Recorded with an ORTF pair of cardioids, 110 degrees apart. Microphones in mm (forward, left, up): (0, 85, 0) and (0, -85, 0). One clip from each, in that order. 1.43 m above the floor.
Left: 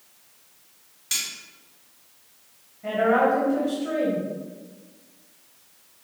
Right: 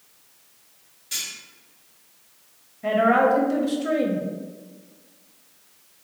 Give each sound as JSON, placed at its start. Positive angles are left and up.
{"t": 1.1, "sound": "cutlery clinking", "azimuth_deg": 70, "distance_m": 1.9}
{"t": 2.8, "sound": "a woman speaking", "azimuth_deg": -40, "distance_m": 0.9}